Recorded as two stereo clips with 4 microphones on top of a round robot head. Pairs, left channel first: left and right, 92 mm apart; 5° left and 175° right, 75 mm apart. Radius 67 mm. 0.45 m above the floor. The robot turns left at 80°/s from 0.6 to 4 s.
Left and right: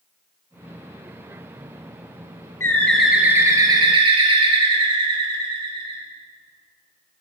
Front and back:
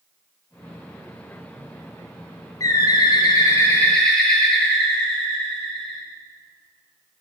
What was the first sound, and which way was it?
A bird, 35° left.